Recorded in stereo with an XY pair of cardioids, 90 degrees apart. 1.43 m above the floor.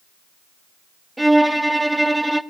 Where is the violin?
10° right, 0.7 m.